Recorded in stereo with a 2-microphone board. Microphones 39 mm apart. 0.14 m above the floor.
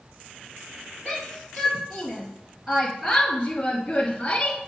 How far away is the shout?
About 3 m.